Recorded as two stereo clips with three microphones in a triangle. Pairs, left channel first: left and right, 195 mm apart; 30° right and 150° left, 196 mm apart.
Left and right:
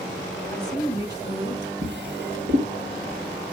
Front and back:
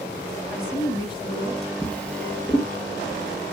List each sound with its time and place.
0.5 s a woman speaking: 30° left, 1.1 m; by 1.7 s 75° right, 1.5 m
1.8 s a drawer: 115° right, 3 m